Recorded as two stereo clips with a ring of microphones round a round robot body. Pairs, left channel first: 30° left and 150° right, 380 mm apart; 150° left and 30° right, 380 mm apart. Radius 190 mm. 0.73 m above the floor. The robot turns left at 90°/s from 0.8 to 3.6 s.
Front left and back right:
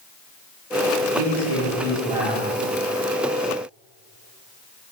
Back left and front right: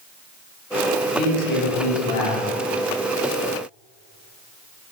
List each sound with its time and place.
1.1 s a man speaking: 130° right, 1.8 m; by 2.4 s 105° left, 1.8 m